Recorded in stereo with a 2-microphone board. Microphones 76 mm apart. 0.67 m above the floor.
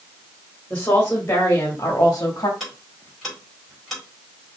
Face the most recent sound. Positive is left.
turn(degrees=0)  # may be behind; listen again after turning